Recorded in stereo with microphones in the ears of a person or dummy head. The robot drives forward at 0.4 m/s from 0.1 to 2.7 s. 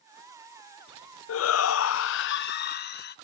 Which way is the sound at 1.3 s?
80° left.